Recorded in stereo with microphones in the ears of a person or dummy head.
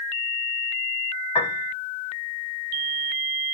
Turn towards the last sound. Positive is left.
turn(degrees=25)  # may be behind; listen again after turning